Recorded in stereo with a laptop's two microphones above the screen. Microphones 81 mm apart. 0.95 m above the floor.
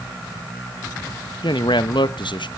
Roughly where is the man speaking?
Left.